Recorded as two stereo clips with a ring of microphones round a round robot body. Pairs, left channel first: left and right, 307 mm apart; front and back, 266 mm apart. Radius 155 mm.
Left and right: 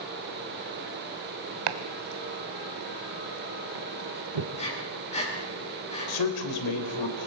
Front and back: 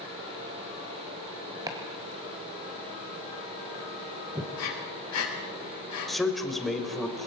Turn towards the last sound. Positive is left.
turn(degrees=90)